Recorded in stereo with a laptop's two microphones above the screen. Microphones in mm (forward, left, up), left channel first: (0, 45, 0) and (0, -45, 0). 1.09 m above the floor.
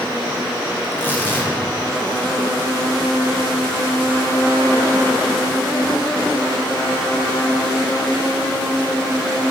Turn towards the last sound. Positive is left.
turn(degrees=25)  # may be behind; listen again after turning